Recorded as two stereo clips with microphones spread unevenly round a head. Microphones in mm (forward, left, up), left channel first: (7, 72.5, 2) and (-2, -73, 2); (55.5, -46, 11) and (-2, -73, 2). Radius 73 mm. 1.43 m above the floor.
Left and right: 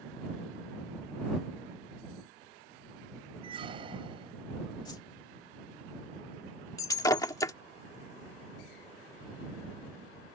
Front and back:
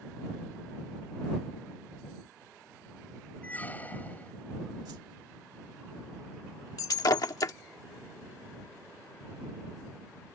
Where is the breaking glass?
20° left.